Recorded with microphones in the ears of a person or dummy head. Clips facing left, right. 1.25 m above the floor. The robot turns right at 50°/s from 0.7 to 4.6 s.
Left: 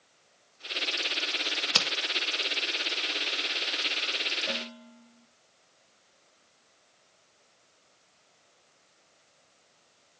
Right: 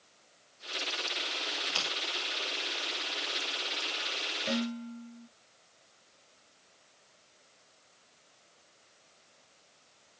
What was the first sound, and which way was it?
A crack, 50° left (ahead or behind).